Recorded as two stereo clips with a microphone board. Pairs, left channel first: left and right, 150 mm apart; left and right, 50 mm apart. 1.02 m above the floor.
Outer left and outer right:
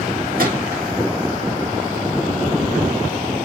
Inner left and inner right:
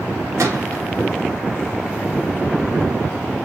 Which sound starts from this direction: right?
A gunshot, at 0.4 s.